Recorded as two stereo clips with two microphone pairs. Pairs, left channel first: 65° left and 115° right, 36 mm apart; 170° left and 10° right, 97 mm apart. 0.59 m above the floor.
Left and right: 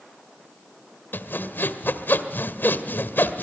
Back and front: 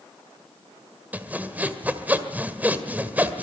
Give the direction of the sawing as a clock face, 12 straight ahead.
10 o'clock.